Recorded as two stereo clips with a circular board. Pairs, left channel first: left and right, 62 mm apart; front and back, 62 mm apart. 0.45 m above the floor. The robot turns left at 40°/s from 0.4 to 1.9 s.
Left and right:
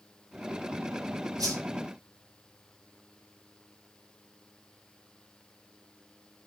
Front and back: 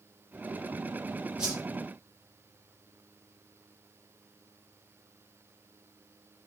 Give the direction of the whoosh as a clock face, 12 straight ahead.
3 o'clock.